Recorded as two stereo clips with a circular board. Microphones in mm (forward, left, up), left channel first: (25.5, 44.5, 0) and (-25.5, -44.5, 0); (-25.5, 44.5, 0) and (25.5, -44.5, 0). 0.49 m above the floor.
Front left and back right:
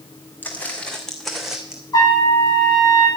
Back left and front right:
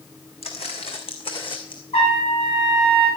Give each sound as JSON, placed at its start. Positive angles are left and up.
{"t": 0.4, "sound": "footsteps", "azimuth_deg": 130, "distance_m": 2.5}
{"t": 1.9, "sound": "a trumpet", "azimuth_deg": 110, "distance_m": 8.0}